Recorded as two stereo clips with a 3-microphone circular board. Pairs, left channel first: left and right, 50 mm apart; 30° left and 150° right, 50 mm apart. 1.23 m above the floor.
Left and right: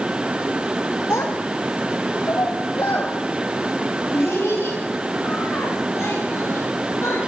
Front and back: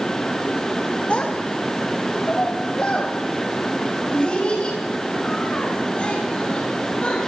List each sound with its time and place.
1.1 s a child speaking: 90° left, 1.7 m; by 7.2 s 95° left, 8 m